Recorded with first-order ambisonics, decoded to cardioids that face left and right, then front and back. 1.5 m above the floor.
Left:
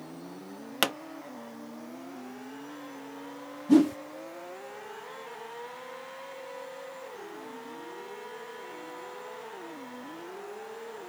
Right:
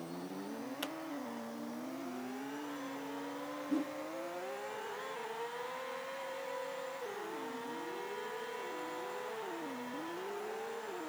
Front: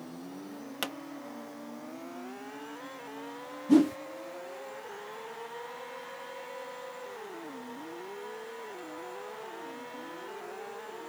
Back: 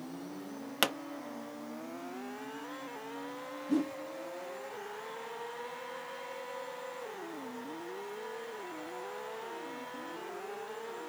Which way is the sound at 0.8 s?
115° left.